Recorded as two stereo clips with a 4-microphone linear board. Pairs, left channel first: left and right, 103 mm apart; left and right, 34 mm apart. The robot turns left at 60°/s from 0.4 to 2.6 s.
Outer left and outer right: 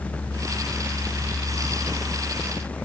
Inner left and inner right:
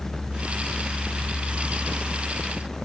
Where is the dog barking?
I don't hear a dog barking.